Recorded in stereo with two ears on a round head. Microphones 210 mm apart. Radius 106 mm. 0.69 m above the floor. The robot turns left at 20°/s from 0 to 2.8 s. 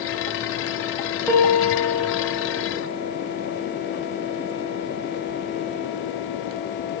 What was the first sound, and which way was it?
A piano, 5° right (ahead or behind).